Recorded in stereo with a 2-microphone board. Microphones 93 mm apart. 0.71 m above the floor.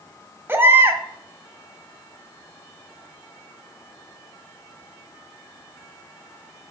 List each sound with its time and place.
0.5 s a baby crying: 25° right (ahead or behind), 1.1 m